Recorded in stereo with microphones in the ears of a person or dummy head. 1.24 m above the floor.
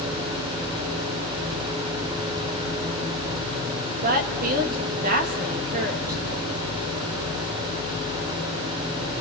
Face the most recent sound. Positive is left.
turn(degrees=-45)  # may be behind; listen again after turning